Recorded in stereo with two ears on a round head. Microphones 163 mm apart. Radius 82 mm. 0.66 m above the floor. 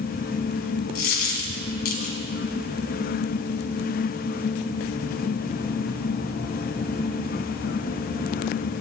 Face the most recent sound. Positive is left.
turn(degrees=55)  # may be behind; listen again after turning